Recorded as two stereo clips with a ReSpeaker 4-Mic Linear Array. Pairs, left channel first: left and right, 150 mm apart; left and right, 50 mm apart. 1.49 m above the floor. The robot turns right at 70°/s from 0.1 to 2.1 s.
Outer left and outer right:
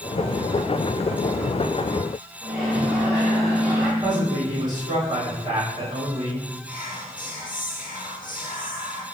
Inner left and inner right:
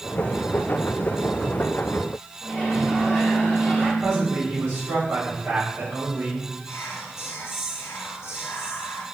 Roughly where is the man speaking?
Right.